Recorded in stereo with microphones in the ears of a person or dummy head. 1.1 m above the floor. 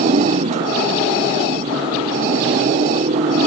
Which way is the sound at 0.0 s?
35° right (ahead or behind).